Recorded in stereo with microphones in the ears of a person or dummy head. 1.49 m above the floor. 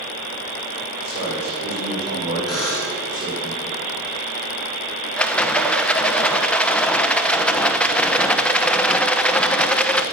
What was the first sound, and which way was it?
A man speaking, 60° right (ahead or behind).